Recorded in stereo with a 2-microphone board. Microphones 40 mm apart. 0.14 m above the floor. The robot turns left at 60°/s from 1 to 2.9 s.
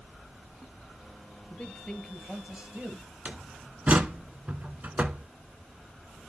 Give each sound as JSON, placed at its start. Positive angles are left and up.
{"t": 1.5, "sound": "a man speaking", "azimuth_deg": 40, "distance_m": 2.0}
{"t": 3.2, "sound": "a door slam", "side_deg": -40, "distance_m": 0.9}